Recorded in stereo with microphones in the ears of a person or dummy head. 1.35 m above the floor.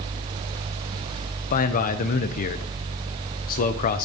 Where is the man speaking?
45° left (ahead or behind), 0.6 m.